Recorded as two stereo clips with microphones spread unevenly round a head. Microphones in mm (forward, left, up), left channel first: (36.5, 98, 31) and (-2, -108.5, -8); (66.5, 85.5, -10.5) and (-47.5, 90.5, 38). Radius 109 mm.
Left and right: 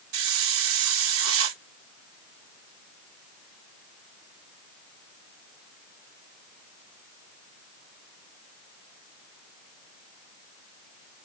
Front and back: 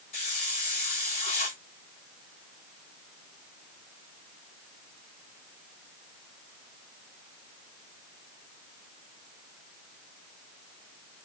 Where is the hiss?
75° right, 0.9 m.